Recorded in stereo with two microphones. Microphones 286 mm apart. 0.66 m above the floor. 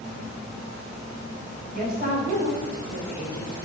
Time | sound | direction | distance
1.7 | a woman speaking | 30° right (ahead or behind) | 3 m